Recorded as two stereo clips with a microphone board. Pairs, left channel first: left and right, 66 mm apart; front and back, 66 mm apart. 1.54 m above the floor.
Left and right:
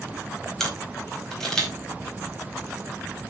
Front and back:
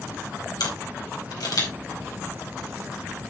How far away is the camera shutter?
About 4.5 m.